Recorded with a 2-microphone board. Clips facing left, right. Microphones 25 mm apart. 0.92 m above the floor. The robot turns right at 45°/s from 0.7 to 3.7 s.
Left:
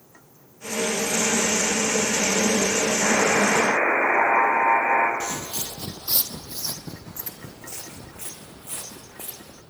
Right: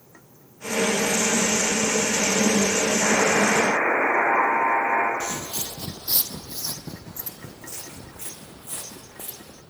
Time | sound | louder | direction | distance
3.0 | a buzzer | even | 15° left | 6 m
5.2 | footsteps | even | 20° left (ahead or behind) | 1.0 m